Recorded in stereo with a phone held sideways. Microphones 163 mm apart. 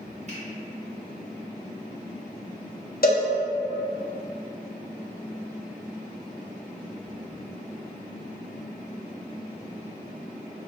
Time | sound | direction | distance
0.3 | a finger snap | 45° right (ahead or behind) | 1.2 m
3.0 | a cowbell | 70° left (ahead or behind) | 0.6 m